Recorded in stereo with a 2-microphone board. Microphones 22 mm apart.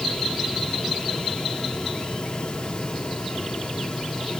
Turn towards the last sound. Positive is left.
No sound to turn to.